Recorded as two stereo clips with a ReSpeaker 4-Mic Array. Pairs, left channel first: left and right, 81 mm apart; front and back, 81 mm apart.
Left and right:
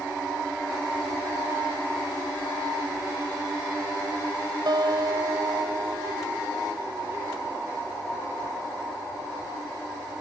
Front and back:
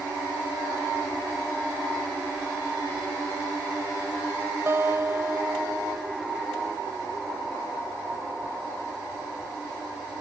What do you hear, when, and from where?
4.7 s a guitar: 120° right